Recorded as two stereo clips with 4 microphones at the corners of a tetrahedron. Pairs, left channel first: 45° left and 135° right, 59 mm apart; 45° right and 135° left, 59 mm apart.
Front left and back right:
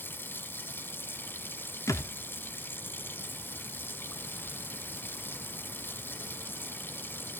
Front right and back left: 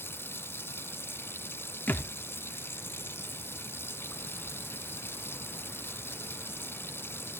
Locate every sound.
0.0 s running water: straight ahead, 1.2 m
1.9 s a thud: 15° left, 1.1 m